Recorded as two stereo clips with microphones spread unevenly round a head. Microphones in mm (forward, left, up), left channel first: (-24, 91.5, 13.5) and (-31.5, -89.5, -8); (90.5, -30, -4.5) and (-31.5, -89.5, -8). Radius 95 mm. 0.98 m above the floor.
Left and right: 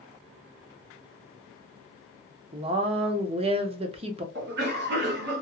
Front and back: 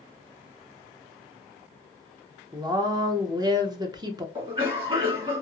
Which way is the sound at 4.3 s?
105° right.